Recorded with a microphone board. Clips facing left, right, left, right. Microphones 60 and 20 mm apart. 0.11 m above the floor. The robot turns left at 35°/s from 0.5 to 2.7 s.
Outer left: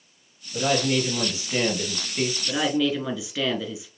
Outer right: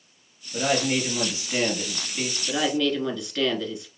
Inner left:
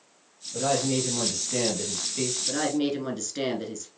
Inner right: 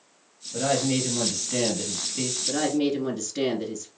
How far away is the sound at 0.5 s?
About 2 m.